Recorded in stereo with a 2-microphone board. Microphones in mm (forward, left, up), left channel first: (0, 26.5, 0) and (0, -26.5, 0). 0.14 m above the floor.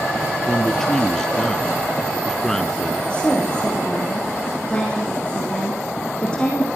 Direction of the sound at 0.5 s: 10° left (ahead or behind).